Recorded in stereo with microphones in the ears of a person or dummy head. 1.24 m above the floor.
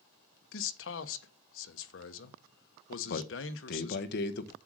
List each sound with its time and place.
0.5 s a man speaking: 65° left (ahead or behind), 1.1 m
3.0 s a man speaking: 55° left (ahead or behind), 1.0 m